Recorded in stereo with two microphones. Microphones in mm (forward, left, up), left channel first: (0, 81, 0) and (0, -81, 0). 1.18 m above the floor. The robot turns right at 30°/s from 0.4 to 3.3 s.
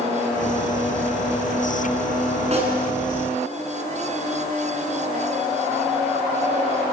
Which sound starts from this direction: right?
A snare drum, at 2.5 s.